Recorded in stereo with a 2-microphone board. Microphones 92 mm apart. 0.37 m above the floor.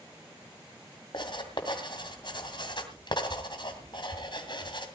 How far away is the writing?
About 2.5 m.